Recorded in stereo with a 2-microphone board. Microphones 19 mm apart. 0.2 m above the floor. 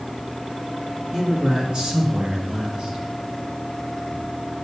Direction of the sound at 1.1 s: 40° right (ahead or behind).